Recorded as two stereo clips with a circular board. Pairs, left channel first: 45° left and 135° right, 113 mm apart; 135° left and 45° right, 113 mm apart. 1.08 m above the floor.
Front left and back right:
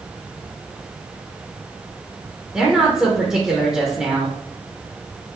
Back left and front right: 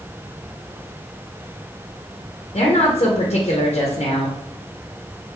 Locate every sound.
2.5 s a woman speaking: 140° left, 0.7 m